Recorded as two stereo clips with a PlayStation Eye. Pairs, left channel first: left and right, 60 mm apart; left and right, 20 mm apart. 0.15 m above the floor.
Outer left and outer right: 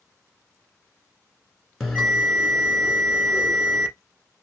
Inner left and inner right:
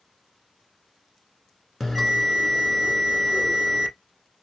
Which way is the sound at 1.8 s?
Centre (ahead or behind).